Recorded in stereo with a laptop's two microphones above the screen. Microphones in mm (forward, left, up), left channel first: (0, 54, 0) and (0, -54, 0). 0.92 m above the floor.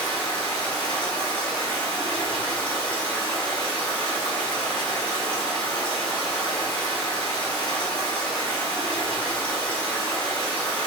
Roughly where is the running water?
Centre.